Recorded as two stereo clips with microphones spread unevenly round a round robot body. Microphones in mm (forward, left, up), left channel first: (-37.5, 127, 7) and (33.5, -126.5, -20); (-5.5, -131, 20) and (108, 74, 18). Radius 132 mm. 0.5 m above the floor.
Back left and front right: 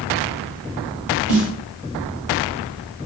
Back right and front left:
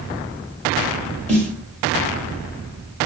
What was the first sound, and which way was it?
A snare drum, 35° right.